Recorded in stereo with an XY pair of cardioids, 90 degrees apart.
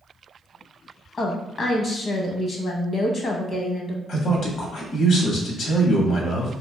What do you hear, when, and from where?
1.2 s a woman speaking: 50° left, 0.9 m
4.1 s a man speaking: 70° left, 1.2 m